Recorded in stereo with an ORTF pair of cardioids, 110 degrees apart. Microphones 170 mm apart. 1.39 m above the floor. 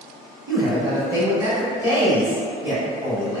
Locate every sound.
0.5 s a man speaking: 15° right, 0.8 m